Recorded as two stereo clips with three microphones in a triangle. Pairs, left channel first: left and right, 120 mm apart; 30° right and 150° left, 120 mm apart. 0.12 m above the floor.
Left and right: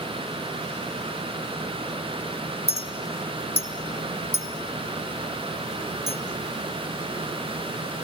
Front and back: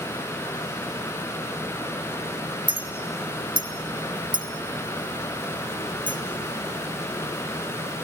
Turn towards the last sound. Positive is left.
turn(degrees=110)